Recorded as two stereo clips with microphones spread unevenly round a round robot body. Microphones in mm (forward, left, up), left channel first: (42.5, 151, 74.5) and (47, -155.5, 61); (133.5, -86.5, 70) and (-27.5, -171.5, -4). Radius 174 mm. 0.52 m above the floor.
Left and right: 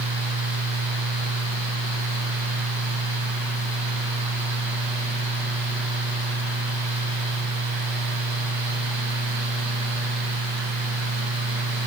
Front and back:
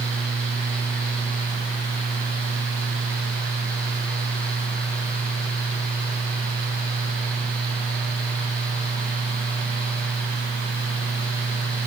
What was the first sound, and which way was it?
Only background noise.